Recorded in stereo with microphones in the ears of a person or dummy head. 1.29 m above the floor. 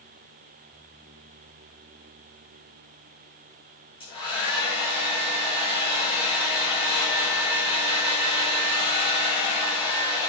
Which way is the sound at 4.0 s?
30° left (ahead or behind).